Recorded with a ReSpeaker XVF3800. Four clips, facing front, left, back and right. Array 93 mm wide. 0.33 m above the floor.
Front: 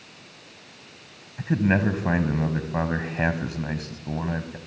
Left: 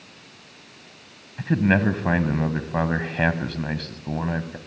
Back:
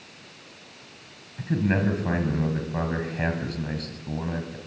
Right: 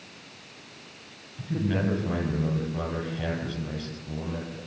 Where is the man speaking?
70° left, 2.5 m.